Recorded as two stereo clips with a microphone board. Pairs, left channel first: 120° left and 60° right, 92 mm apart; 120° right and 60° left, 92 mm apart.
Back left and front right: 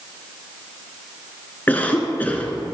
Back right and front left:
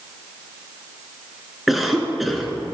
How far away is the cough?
About 1.1 m.